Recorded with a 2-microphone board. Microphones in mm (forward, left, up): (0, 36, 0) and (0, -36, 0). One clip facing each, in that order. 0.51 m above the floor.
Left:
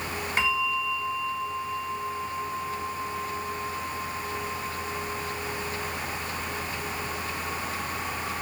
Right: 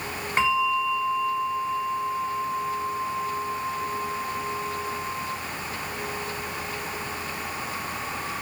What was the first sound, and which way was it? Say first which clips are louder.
A bell: right 5 dB; 35° right (ahead or behind).